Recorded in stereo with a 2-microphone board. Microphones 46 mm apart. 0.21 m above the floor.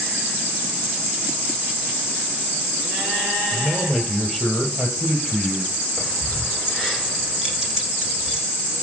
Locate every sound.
3.5 s a man speaking: 10° right (ahead or behind), 5.5 m; by 5.8 s 5° left (ahead or behind), 6 m
6.0 s keys jangling: 15° right (ahead or behind), 9 m